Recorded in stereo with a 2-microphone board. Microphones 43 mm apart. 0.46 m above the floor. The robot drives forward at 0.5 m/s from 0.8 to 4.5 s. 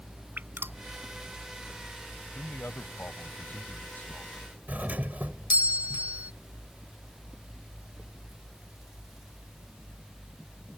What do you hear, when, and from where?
0.4 s dripping: 55° right (ahead or behind)
2.4 s a man speaking: 60° left (ahead or behind); by 4.3 s 40° left (ahead or behind)
4.7 s a doorbell: 40° right (ahead or behind)